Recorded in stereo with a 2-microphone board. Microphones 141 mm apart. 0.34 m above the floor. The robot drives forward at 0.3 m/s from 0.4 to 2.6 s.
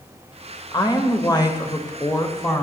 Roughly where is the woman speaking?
Left.